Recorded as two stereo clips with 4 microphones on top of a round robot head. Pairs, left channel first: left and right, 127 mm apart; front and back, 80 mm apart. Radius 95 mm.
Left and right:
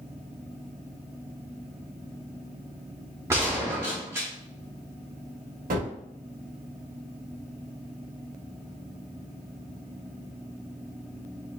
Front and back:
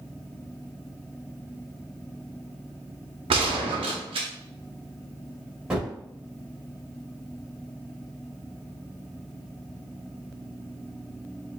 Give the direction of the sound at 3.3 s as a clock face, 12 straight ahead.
5 o'clock.